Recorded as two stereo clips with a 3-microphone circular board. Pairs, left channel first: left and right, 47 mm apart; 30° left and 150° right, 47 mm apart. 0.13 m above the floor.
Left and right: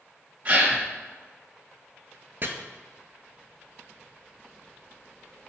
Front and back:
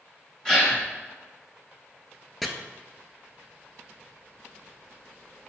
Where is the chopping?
55° right, 0.9 m.